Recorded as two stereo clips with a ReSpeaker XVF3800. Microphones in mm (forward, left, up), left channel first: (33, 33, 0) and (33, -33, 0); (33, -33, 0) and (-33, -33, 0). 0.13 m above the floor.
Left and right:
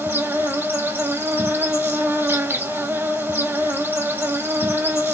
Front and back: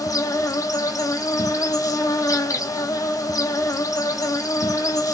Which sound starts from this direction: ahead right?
An insect, at 0.0 s.